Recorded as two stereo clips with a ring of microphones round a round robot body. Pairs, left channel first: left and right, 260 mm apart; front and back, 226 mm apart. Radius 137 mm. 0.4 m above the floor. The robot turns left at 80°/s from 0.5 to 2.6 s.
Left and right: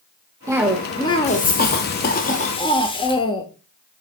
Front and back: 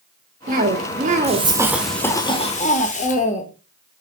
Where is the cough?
160° right, 1.1 m; by 3.4 s 30° left, 1.1 m.